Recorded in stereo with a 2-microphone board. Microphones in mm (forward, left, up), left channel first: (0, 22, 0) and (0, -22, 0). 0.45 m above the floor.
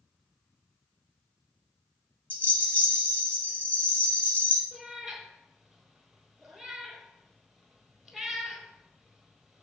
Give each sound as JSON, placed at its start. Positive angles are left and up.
{"t": 2.3, "sound": "a rattle", "side_deg": 40, "distance_m": 1.2}
{"t": 4.7, "sound": "a cat meowing", "side_deg": 0, "distance_m": 1.4}